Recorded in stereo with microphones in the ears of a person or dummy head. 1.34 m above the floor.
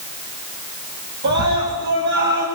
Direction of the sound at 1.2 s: 55° right (ahead or behind).